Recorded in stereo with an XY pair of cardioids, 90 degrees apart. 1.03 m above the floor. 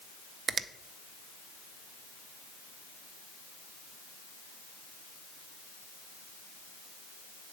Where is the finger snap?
55° right, 0.6 m.